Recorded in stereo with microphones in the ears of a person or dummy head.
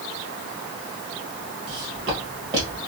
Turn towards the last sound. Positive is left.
turn(degrees=-20)  # may be behind; listen again after turning